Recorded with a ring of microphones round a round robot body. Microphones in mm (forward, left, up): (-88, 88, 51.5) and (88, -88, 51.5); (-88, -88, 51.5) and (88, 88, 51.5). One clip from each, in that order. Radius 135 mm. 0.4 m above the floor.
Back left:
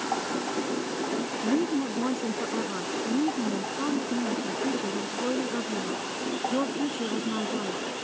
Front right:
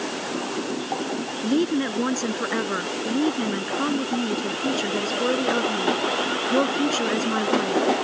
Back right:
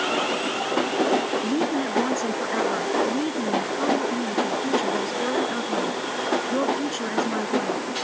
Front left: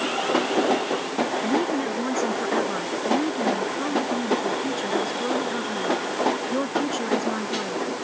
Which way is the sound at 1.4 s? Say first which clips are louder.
Front right 5 dB, front left 1 dB; 45° right.